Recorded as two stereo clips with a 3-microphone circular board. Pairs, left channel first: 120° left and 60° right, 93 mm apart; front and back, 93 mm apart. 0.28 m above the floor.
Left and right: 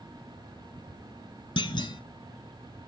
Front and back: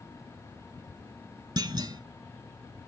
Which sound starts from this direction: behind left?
A clunk, at 1.6 s.